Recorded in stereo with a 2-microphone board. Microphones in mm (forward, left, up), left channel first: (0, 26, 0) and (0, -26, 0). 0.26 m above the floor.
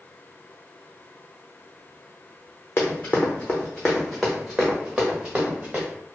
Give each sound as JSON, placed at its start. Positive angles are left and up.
{"t": 2.8, "sound": "running footsteps", "side_deg": 35, "distance_m": 1.1}